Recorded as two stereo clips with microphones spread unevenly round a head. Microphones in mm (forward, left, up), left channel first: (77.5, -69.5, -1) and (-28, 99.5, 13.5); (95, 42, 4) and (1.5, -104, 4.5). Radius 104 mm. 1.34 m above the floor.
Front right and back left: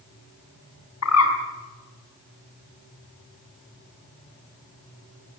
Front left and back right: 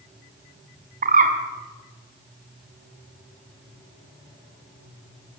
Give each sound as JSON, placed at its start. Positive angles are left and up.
{"t": 1.0, "sound": "a bird", "azimuth_deg": -80, "distance_m": 5.5}